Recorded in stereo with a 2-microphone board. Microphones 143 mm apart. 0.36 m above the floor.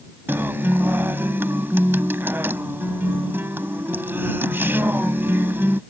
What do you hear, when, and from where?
0.3 s a guitar: 15° right (ahead or behind)